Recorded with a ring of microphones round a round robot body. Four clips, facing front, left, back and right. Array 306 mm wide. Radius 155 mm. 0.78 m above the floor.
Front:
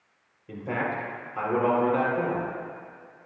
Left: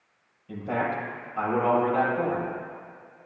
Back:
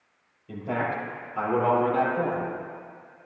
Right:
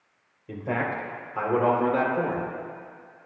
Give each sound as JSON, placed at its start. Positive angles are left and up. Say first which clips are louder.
{"t": 0.5, "sound": "a man speaking", "louder": "even, back 1 dB", "azimuth_deg": -70, "distance_m": 3.5}